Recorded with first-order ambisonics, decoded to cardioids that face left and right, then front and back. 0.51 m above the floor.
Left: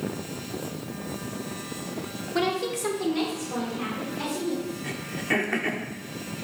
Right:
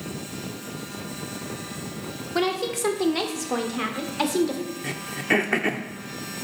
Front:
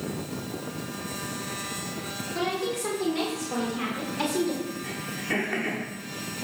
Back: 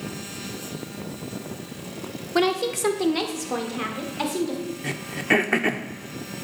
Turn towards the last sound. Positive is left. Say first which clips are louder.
# right 5 dB, back 11 dB
turn(degrees=-155)